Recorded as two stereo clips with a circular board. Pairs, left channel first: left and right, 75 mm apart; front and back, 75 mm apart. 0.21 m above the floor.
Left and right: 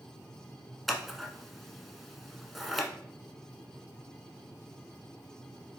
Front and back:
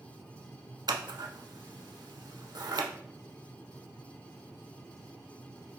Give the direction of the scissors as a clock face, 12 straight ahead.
6 o'clock.